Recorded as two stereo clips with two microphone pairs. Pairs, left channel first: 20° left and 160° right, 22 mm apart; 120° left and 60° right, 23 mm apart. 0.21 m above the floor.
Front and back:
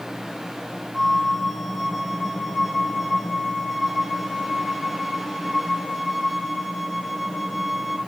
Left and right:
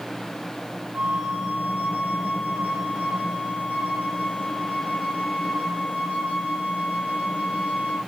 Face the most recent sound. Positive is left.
turn(degrees=-75)